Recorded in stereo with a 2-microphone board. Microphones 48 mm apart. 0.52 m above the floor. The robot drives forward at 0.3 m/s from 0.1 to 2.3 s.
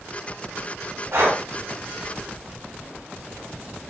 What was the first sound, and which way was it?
Breathing, 65° right (ahead or behind).